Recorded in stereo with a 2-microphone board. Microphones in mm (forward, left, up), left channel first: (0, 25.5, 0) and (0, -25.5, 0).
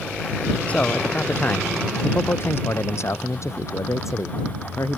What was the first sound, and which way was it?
A man speaking, 30° left (ahead or behind).